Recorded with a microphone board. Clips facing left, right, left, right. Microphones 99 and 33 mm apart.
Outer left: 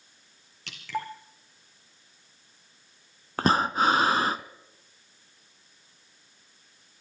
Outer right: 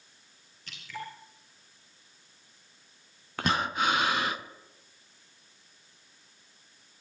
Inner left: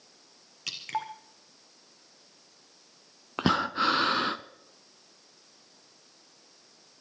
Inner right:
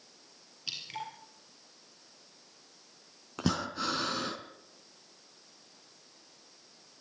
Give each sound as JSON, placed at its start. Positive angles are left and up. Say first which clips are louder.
{"t": 0.7, "sound": "dripping", "louder": "outer left 7 dB, inner left 6 dB", "side_deg": 80, "distance_m": 3.5}
{"t": 3.4, "sound": "breathing", "louder": "outer left 5 dB, inner left 7 dB", "side_deg": 35, "distance_m": 0.8}